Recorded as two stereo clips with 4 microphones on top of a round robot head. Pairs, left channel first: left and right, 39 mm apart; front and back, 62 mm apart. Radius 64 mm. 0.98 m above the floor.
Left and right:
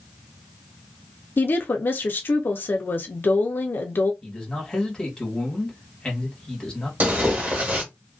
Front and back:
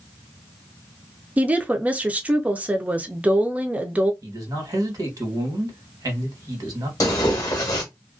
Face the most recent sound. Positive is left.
turn(degrees=-50)